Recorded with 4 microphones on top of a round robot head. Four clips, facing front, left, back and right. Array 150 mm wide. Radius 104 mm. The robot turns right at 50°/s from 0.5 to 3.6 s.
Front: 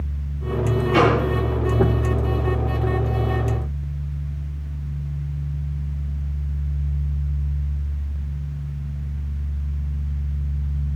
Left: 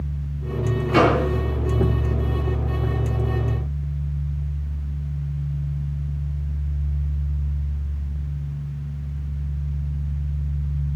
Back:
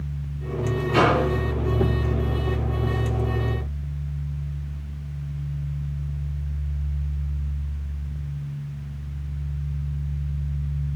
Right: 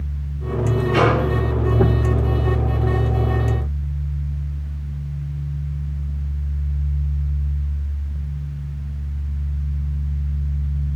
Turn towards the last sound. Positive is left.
turn(degrees=-135)